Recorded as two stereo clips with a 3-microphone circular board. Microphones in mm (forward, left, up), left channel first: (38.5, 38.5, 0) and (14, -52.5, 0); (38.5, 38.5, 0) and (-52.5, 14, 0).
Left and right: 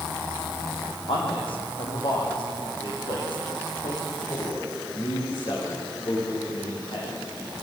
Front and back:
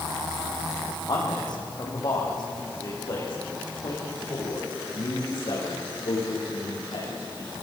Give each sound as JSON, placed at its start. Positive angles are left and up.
{"t": 1.1, "sound": "a man speaking", "azimuth_deg": 55, "distance_m": 7.5}